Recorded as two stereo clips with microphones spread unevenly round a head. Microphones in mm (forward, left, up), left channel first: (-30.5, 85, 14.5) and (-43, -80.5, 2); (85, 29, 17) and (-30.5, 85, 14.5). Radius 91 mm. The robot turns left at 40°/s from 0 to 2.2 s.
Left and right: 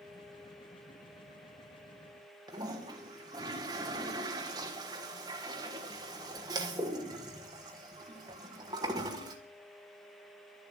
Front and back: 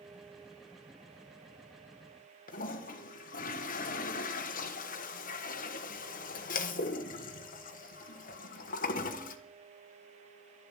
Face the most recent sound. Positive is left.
turn(degrees=-25)